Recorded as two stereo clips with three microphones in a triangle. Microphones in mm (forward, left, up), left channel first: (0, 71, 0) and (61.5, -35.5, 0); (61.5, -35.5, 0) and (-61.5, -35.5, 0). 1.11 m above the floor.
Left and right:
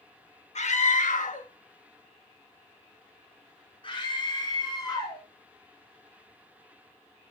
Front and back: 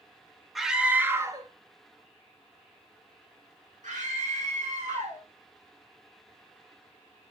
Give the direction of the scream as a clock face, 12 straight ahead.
9 o'clock.